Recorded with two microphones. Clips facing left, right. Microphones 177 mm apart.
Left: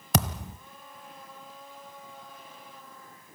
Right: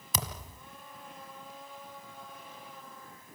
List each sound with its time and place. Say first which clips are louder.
0.1 s a thud: left 11 dB; 75° left (ahead or behind), 1.2 m